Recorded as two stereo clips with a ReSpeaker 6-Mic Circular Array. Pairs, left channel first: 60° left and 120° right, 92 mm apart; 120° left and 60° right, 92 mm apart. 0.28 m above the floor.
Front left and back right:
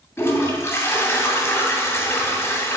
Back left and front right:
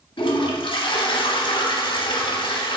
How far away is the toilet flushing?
About 0.8 m.